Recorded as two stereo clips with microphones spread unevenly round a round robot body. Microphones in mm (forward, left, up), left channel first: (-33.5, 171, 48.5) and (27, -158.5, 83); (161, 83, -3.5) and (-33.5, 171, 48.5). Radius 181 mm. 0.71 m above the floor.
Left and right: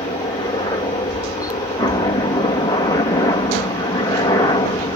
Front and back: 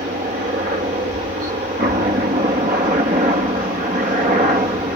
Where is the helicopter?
155° left; by 5.0 s 145° left.